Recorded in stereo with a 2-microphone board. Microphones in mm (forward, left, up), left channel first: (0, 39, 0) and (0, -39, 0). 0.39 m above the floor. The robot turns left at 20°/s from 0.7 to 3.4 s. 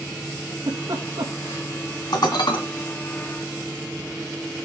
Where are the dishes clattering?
60° left (ahead or behind), 2 m; by 2.6 s 70° left (ahead or behind), 2 m.